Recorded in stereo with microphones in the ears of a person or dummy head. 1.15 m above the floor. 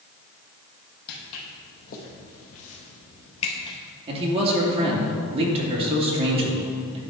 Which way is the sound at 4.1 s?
30° right (ahead or behind).